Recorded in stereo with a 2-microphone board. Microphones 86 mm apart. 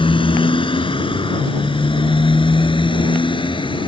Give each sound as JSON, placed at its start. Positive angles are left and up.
{"t": 0.0, "sound": "a motorcycle", "side_deg": 85}